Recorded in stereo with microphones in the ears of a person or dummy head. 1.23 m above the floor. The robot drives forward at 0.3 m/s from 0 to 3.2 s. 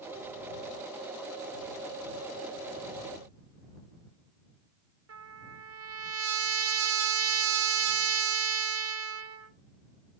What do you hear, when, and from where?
5.1 s a trumpet: 75° right (ahead or behind), 0.8 m